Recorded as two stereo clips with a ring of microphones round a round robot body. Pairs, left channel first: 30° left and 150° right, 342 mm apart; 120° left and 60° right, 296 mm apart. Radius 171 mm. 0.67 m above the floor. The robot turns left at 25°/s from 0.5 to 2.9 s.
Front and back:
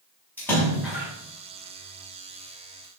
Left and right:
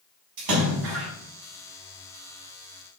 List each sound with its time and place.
0.4 s a splash: 55° right, 5.5 m; by 1.1 s 70° right, 5.5 m